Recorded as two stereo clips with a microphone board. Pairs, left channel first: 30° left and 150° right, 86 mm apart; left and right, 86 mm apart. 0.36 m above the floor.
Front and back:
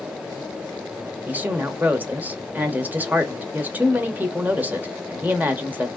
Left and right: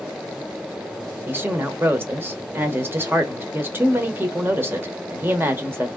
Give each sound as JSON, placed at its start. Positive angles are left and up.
{"t": 1.3, "sound": "a woman speaking", "azimuth_deg": -110, "distance_m": 0.9}